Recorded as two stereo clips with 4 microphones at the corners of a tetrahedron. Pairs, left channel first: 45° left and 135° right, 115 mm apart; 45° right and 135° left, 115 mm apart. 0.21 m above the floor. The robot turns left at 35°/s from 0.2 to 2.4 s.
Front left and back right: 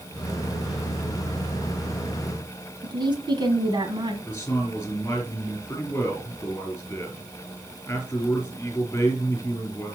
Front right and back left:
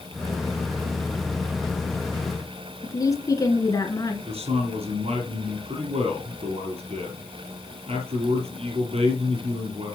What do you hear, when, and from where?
2.8 s a woman speaking: 95° right, 2.0 m
4.3 s a man speaking: 115° left, 3.5 m